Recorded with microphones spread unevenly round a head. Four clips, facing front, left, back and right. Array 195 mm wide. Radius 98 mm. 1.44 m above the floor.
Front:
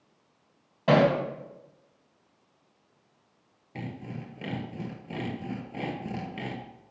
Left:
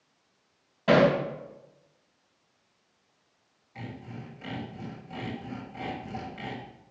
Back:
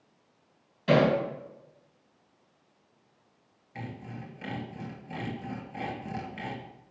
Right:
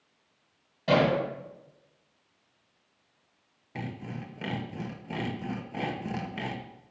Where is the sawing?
50° right, 1.1 m.